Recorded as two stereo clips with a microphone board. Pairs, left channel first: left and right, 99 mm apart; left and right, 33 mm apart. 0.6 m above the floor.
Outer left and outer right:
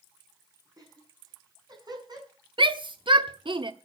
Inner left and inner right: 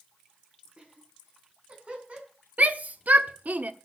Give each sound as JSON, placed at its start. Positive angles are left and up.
{"t": 0.8, "sound": "laughter", "side_deg": -40, "distance_m": 6.5}
{"t": 2.6, "sound": "a shout", "side_deg": -55, "distance_m": 1.2}